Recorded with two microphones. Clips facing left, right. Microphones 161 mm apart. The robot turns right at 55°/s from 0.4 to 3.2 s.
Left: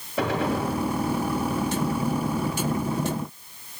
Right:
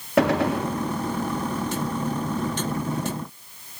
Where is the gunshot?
85° right, 2.5 m; by 0.7 s 65° right (ahead or behind), 2.5 m.